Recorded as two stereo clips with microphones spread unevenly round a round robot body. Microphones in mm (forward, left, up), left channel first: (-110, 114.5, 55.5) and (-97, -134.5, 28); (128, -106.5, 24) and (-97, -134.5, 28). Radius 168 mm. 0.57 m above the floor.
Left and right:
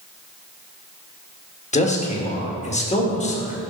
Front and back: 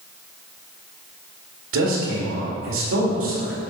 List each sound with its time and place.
1.7 s a man speaking: 155° left, 1.8 m